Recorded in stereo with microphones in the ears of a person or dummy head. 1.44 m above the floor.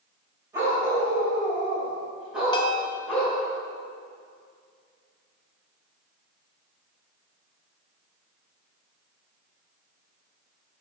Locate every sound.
0.5 s a dog barking: 15° right (ahead or behind), 2.5 m; by 3.4 s 5° left (ahead or behind), 4.5 m
2.5 s a bell: 30° left (ahead or behind), 0.6 m